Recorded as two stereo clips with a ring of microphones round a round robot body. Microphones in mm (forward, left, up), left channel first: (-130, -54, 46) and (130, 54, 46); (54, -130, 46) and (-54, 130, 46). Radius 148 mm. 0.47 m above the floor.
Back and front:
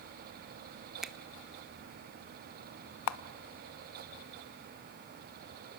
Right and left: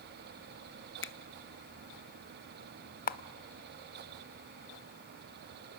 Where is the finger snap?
65° right, 0.9 m.